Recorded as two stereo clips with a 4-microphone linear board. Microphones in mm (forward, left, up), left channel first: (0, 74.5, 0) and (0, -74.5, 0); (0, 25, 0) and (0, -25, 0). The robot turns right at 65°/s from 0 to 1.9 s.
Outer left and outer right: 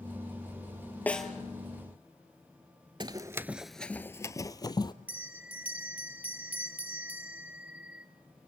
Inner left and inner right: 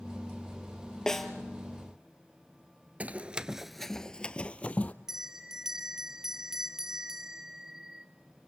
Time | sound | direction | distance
1.1 | a snare drum | 10° left (ahead or behind) | 1.9 m
3.0 | running footsteps | 35° right (ahead or behind) | 0.6 m
5.1 | a bell | 10° right (ahead or behind) | 1.2 m